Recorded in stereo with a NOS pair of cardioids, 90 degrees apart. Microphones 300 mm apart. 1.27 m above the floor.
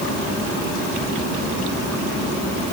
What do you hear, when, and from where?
Only background noise.